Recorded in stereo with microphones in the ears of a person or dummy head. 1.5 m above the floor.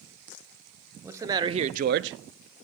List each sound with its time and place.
1.0 s a man speaking: 15° right (ahead or behind), 0.9 m; by 2.7 s 55° right (ahead or behind), 0.7 m